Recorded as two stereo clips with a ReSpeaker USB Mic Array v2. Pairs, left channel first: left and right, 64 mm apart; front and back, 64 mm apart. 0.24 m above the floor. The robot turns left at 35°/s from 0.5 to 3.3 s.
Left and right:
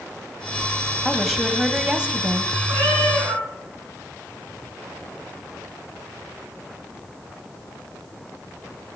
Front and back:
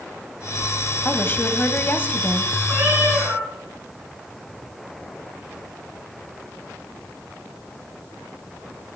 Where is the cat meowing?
100° right, 9 m; by 3.5 s 120° right, 9 m.